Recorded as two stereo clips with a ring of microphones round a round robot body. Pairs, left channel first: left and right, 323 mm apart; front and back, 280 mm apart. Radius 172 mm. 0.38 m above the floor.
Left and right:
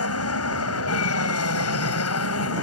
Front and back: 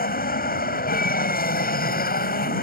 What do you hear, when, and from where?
0.0 s an aircraft: 55° left